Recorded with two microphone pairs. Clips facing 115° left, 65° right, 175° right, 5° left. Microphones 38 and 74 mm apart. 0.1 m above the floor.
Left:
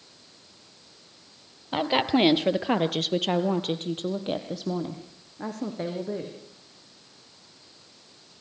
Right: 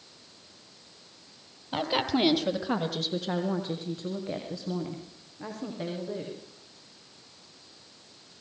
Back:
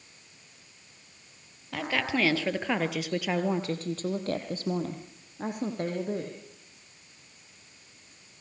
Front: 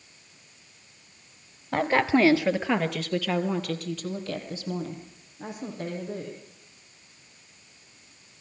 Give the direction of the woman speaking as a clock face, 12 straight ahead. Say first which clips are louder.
Left 4 dB, front 7 dB; 11 o'clock.